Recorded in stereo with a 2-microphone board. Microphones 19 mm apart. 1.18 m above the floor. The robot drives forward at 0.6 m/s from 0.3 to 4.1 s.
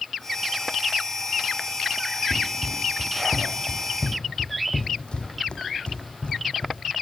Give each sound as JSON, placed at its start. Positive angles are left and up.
{"t": 2.3, "sound": "running footsteps", "side_deg": 15, "distance_m": 2.5}